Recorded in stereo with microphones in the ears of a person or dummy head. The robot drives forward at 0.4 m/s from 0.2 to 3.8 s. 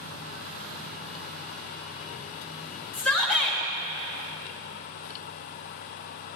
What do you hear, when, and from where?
2.9 s a shout: 10° left (ahead or behind), 1.9 m; by 3.6 s 5° left (ahead or behind), 2 m